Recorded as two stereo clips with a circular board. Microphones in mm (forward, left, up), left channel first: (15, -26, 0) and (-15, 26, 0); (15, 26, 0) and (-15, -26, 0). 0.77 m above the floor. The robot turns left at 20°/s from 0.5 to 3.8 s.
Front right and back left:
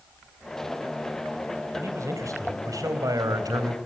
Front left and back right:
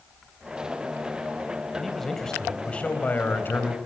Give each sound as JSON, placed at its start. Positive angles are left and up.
{"t": 1.7, "sound": "a man speaking", "azimuth_deg": 155, "distance_m": 3.5}